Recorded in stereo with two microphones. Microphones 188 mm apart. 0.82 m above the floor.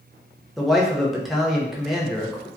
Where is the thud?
No thud in this recording.